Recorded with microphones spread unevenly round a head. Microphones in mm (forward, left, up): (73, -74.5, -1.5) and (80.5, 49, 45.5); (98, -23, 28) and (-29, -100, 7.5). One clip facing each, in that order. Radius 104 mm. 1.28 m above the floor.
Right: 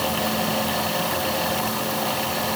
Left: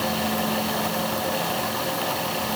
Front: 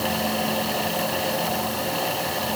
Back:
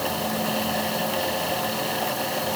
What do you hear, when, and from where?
Only background noise.